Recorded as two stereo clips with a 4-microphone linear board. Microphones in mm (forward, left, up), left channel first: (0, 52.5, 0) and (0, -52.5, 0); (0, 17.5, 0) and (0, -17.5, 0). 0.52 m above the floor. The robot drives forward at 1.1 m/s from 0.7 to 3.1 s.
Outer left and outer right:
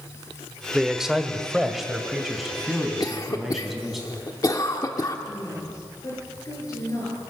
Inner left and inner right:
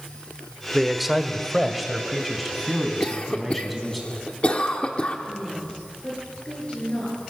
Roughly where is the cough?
Left.